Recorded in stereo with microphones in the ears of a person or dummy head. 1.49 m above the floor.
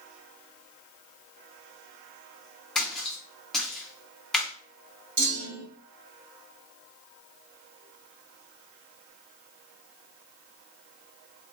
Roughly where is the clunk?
Right.